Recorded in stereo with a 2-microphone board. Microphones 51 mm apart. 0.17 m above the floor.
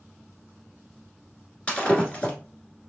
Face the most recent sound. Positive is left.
turn(degrees=25)  # may be behind; listen again after turning